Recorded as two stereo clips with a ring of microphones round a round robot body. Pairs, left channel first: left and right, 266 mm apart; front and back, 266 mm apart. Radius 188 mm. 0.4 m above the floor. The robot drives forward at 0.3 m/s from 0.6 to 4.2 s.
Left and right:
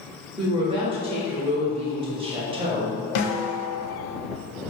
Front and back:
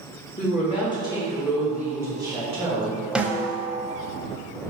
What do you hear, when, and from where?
0.4 s a woman speaking: 40° right, 0.8 m; by 3.0 s 150° right, 0.9 m
3.1 s a snare drum: 95° left, 0.6 m; by 3.8 s 110° left, 0.7 m